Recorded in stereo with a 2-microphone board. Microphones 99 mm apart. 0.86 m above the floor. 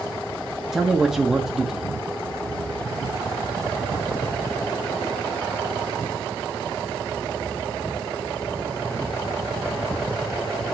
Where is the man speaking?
5° right (ahead or behind), 0.9 m.